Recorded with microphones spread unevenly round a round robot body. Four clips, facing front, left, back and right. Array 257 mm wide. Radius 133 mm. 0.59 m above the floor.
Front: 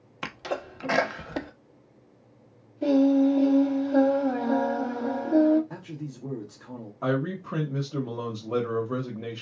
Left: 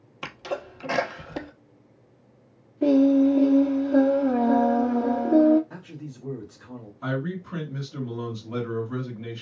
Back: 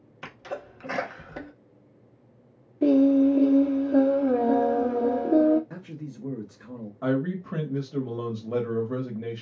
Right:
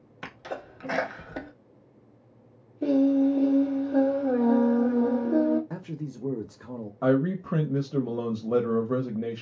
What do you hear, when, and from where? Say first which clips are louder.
0.2 s a sneeze: left 5 dB, front 4 dB; 30° left, 1.0 m
2.8 s singing: left 4 dB, back 2 dB; 130° left, 1.0 m
5.7 s a man speaking: right 4 dB, front 1 dB; 80° right, 1.0 m
7.0 s a man speaking: right 6 dB, back 1 dB; 65° right, 1.0 m